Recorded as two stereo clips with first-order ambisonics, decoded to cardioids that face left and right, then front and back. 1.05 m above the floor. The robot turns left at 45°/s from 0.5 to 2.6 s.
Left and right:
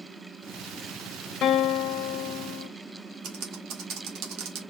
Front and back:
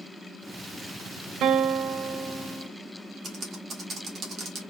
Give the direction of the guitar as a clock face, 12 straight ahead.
7 o'clock.